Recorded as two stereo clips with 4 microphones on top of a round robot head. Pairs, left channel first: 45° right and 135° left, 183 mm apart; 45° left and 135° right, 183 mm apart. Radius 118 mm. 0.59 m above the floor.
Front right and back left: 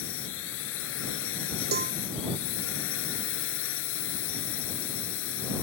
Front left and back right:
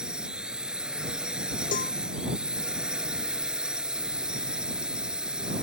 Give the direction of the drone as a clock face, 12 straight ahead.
2 o'clock.